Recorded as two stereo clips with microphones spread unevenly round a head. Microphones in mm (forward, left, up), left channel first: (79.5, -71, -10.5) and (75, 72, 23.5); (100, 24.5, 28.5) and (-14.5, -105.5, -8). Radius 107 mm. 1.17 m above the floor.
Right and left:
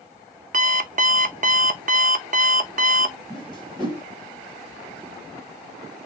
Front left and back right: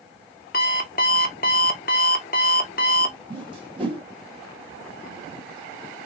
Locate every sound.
0.5 s an alarm clock: 85° left, 0.7 m
3.3 s a whoosh: 165° left, 1.7 m